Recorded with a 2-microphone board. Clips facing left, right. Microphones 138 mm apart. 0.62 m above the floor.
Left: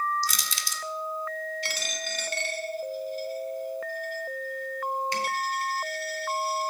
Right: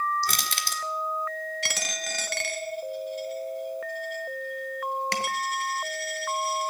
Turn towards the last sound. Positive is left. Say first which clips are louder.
# even
turn(degrees=-85)